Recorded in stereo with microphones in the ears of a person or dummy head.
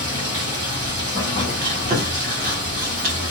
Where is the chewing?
45° right (ahead or behind), 1.0 m.